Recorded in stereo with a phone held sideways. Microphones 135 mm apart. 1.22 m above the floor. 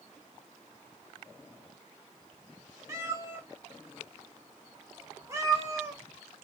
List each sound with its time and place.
2.9 s a cat meowing: 20° right (ahead or behind), 0.7 m